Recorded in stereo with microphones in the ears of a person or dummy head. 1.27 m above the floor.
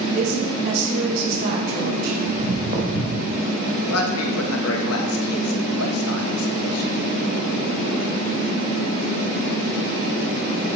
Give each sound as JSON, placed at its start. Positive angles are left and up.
{"t": 0.1, "sound": "a woman speaking", "side_deg": -55, "distance_m": 5.0}
{"t": 2.3, "sound": "footsteps", "side_deg": -35, "distance_m": 4.5}
{"t": 3.9, "sound": "a man speaking", "side_deg": 85, "distance_m": 1.6}